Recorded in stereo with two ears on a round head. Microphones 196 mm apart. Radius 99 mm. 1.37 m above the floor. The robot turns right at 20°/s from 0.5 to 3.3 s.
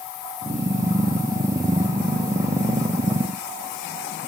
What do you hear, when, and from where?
Only background noise.